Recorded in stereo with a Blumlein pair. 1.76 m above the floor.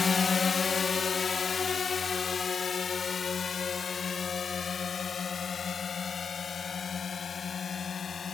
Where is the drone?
15° left; by 8.3 s 20° left.